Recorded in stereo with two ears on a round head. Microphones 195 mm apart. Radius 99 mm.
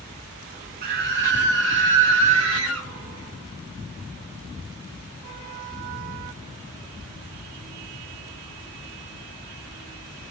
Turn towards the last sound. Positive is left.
turn(degrees=-60)  # may be behind; listen again after turning